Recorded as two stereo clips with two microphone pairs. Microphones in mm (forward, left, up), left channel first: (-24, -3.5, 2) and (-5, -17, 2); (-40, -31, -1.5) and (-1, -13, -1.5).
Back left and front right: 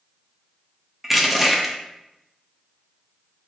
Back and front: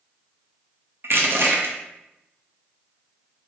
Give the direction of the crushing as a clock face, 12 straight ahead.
10 o'clock.